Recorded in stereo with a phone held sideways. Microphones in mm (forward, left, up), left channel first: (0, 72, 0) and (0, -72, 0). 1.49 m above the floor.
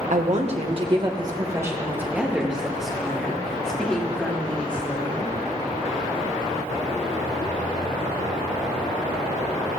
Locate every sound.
0.1 s a woman speaking: 60° right (ahead or behind), 1.5 m; by 5.3 s 10° left (ahead or behind), 4.5 m